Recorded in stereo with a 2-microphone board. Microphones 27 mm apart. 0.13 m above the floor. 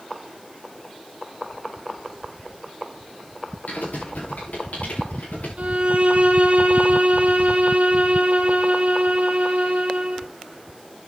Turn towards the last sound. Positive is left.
turn(degrees=-45)  # may be behind; listen again after turning